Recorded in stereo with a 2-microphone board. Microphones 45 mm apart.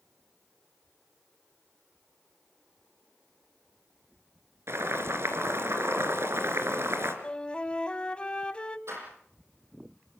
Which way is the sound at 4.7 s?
65° right (ahead or behind).